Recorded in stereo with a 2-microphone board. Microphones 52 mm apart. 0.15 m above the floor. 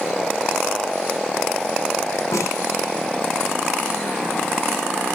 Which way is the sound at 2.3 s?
80° left.